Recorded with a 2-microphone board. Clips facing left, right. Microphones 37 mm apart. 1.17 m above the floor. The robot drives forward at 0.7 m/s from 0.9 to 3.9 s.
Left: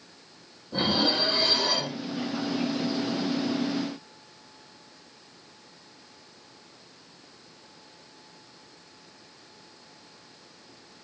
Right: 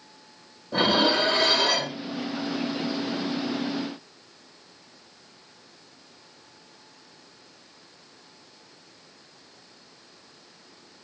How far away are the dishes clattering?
About 1.4 m.